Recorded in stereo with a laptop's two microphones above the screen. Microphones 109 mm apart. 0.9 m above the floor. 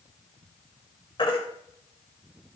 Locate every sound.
1.2 s a baby crying: 55° left (ahead or behind), 2.5 m